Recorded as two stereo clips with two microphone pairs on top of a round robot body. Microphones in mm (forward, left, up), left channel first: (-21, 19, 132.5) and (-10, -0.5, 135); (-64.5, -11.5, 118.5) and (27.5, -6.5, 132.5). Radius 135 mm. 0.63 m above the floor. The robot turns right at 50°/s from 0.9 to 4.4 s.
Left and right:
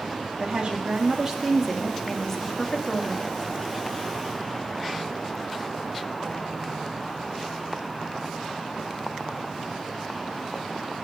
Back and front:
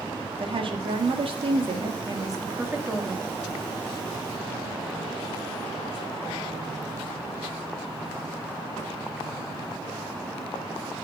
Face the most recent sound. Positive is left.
turn(degrees=160)